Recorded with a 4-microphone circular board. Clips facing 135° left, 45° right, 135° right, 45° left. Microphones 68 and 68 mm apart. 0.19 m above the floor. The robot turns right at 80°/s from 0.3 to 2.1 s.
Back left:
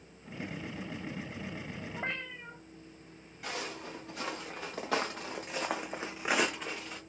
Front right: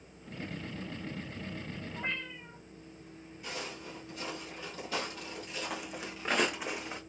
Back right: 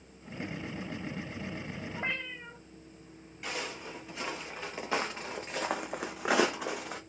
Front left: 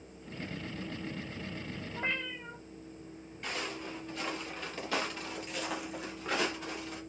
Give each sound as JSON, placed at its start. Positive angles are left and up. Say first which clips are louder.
{"t": 1.9, "sound": "a cat meowing", "louder": "even, front left 1 dB", "azimuth_deg": 150, "distance_m": 2.5}
{"t": 3.4, "sound": "footsteps", "louder": "back left 3 dB, even", "azimuth_deg": 140, "distance_m": 2.5}